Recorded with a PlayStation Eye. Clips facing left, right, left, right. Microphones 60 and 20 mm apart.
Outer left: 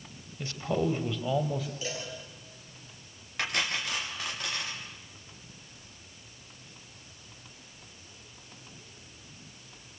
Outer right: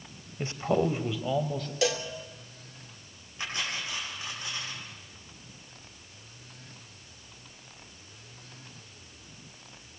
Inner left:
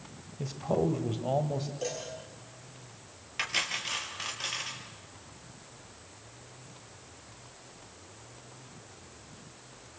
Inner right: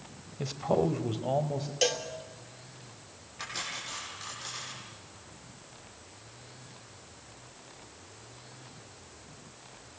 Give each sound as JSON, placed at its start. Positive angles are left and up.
{"t": 0.4, "sound": "a man speaking", "side_deg": -30, "distance_m": 1.3}
{"t": 1.8, "sound": "a cowbell", "side_deg": -80, "distance_m": 2.5}
{"t": 3.4, "sound": "cutlery clinking", "side_deg": 75, "distance_m": 4.0}